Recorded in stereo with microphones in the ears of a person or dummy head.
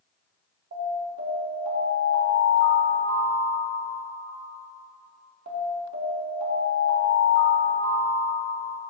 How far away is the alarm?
About 1.2 m.